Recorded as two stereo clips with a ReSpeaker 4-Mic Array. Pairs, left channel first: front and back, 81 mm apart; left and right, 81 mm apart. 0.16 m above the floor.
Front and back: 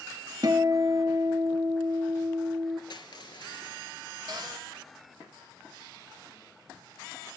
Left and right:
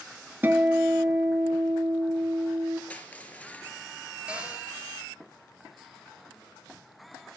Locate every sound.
0.4 s a guitar: 150° right, 0.6 m
2.9 s crushing: 20° left, 0.8 m
4.3 s a cupboard door: 165° right, 3 m